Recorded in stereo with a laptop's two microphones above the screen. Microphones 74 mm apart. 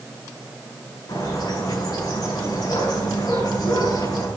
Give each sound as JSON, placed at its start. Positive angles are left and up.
{"t": 1.1, "sound": "a bird", "side_deg": 80, "distance_m": 6.5}